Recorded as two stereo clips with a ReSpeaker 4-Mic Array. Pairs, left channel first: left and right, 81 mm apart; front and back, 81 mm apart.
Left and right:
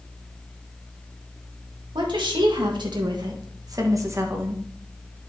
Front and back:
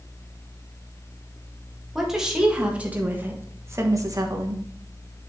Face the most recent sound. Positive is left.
turn(degrees=-155)